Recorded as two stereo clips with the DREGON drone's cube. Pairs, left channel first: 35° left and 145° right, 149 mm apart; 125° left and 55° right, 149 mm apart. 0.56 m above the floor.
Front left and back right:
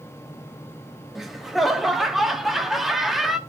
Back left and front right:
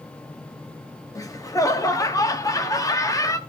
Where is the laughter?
125° left, 1.0 m.